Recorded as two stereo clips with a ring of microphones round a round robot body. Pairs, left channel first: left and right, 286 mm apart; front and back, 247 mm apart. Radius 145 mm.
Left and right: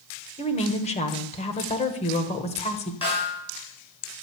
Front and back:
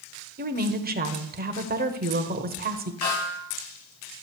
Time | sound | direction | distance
0.4 | a woman speaking | 150° left | 1.3 m
3.0 | a snare drum | 20° left | 5.5 m